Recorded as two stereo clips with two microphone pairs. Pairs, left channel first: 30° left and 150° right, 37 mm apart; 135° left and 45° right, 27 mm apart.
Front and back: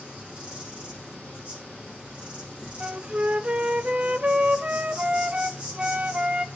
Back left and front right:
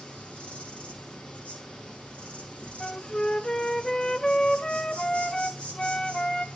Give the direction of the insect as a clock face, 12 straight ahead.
7 o'clock.